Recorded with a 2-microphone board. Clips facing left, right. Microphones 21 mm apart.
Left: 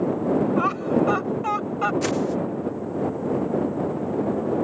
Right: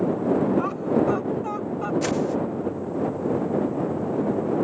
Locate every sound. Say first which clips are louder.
0.6 s laughter: left 1 dB; 35° left (ahead or behind); by 1.9 s 45° left (ahead or behind)
2.0 s a whoosh: even; 5° left (ahead or behind)